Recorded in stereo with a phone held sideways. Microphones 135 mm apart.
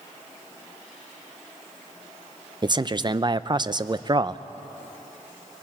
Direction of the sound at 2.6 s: 35° right (ahead or behind).